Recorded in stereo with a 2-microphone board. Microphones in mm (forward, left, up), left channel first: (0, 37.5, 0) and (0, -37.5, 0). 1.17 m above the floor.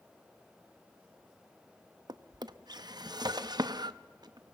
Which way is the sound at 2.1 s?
65° right (ahead or behind).